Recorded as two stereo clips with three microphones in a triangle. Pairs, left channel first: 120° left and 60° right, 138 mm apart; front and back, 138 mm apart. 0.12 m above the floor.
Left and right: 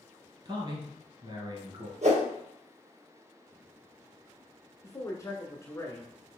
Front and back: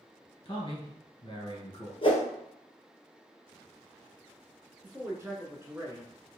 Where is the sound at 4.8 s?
145° left, 1.1 m.